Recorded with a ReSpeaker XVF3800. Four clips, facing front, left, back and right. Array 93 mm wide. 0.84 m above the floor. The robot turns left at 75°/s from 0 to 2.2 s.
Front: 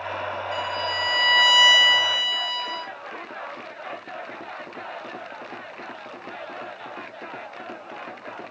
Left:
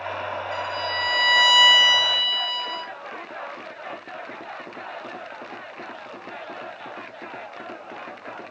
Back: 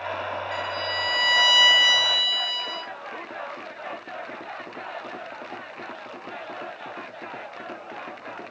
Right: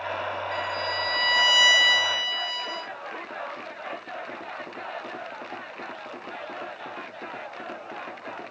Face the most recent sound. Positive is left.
turn(degrees=40)